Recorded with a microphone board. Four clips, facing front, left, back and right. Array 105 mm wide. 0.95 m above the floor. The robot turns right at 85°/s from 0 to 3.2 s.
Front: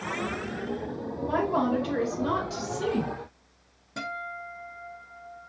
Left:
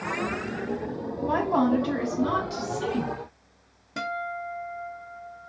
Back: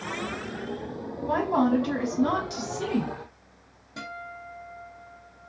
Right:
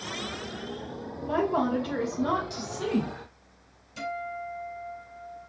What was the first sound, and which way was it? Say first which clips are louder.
A woman speaking: left 3 dB, back 2 dB; 90° left.